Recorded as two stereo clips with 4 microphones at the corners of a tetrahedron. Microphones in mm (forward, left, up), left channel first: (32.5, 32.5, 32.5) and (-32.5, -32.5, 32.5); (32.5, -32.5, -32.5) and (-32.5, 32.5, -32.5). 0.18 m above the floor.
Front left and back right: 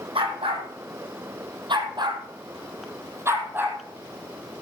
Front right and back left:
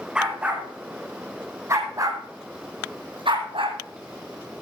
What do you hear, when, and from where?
0.1 s a dog barking: 145° right, 3 m; by 3.8 s 155° left, 2.5 m